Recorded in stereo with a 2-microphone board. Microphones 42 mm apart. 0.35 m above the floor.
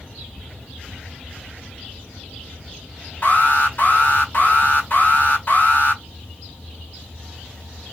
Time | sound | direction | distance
3.2 | an alarm | 50° left (ahead or behind) | 3 m